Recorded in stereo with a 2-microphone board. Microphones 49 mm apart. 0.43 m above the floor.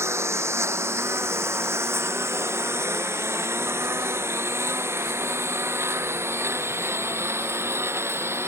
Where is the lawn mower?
70° right (ahead or behind); by 8.5 s 60° right (ahead or behind).